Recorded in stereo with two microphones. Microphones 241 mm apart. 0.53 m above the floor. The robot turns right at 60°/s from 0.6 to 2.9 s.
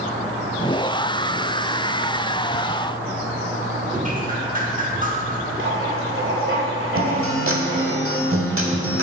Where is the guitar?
70° right (ahead or behind), 1.0 m.